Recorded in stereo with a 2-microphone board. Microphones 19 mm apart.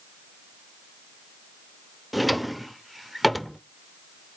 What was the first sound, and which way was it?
A drawer, centre (ahead or behind).